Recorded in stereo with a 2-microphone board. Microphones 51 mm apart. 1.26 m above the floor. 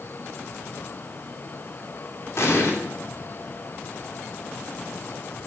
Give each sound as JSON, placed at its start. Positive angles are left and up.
{"t": 2.4, "sound": "an explosion", "side_deg": 60, "distance_m": 3.0}